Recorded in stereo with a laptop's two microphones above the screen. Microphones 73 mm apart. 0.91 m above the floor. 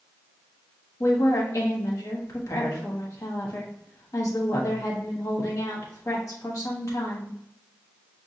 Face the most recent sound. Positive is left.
turn(degrees=55)  # may be behind; listen again after turning